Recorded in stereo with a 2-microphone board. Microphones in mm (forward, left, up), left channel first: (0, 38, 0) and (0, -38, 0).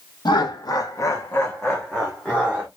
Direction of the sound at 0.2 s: 70° left (ahead or behind).